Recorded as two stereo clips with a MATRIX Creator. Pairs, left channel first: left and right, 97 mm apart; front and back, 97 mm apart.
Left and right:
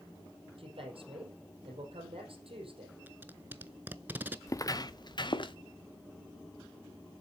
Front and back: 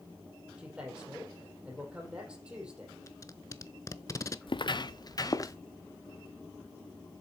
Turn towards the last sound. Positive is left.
turn(degrees=55)